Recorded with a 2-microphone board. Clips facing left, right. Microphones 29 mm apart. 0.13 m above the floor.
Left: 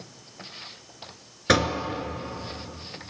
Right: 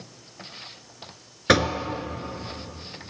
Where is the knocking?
10° right (ahead or behind), 1.0 m.